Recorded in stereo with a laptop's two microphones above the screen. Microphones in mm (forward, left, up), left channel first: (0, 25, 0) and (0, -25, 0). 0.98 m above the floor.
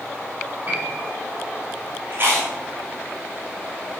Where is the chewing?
45° right (ahead or behind), 4.5 m.